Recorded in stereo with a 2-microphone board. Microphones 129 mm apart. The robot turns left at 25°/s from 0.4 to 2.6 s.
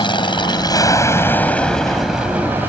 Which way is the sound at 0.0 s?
40° left.